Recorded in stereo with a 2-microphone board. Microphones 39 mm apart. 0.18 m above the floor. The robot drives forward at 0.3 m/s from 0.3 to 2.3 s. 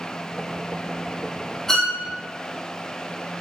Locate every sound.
1.7 s a violin: 15° left (ahead or behind), 2 m; by 2.0 s 10° left (ahead or behind), 2 m